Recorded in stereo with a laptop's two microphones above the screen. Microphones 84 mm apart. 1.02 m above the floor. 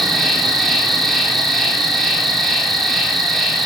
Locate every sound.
0.0 s an insect: centre (ahead or behind), 4 m